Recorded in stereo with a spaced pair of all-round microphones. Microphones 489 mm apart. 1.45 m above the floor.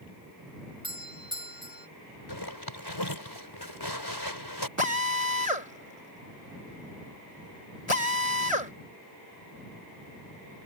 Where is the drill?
85° left.